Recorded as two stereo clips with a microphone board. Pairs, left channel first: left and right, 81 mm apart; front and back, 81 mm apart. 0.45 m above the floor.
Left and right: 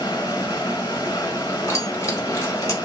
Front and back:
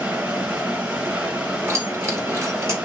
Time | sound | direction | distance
0.0 | running water | 115° left | 1.4 m
1.7 | keys jangling | 135° left | 1.2 m